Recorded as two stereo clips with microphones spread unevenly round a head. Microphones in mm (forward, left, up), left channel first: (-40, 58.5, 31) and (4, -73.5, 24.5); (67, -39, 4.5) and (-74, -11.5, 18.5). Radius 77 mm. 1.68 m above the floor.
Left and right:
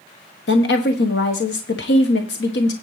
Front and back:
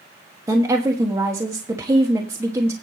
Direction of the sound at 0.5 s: 95° left.